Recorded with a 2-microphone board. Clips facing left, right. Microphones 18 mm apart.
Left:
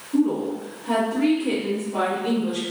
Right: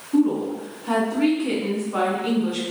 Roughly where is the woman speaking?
Right.